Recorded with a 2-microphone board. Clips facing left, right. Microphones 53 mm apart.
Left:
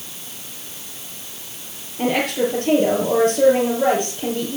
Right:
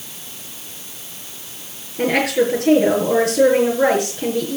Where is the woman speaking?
65° right (ahead or behind), 5.5 m.